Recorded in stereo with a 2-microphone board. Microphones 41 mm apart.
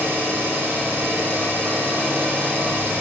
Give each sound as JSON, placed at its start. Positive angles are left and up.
{"t": 0.0, "sound": "an engine running", "side_deg": -65, "distance_m": 1.1}